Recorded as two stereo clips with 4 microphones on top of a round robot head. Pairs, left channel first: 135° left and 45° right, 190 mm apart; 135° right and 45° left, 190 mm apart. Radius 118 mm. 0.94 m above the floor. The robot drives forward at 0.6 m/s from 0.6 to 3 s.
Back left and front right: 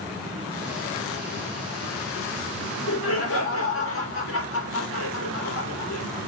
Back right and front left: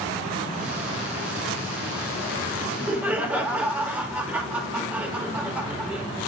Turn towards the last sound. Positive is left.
turn(degrees=125)